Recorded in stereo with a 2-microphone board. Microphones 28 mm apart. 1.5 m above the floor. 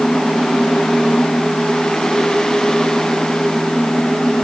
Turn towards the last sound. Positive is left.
No sound to turn to.